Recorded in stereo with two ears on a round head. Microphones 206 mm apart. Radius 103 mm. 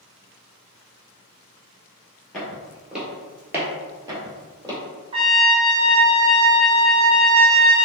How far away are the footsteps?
About 1.2 m.